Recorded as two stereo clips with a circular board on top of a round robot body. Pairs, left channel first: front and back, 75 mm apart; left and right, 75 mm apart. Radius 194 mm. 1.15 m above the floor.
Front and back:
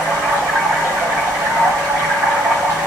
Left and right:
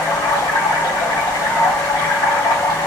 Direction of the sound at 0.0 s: 115° left.